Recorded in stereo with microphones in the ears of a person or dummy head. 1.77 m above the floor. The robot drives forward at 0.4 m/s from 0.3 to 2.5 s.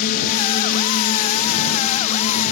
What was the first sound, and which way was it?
A drone, 50° left (ahead or behind).